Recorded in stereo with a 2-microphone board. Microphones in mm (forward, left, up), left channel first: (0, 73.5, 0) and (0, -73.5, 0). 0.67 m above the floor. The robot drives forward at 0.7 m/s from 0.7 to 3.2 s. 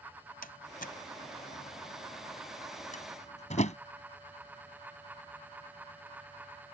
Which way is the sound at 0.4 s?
80° left.